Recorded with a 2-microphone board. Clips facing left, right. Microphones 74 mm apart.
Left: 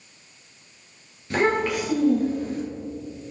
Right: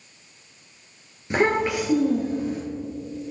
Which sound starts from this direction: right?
A child speaking, at 1.3 s.